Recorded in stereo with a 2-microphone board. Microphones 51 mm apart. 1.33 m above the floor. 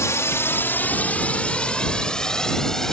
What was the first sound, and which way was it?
A drone, 70° left (ahead or behind).